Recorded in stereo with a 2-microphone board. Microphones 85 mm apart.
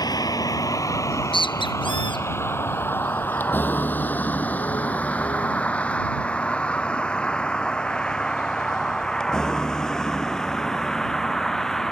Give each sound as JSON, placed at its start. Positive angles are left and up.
{"t": 0.0, "sound": "a vehicle", "side_deg": 50}
{"t": 1.1, "sound": "a bird", "side_deg": 80}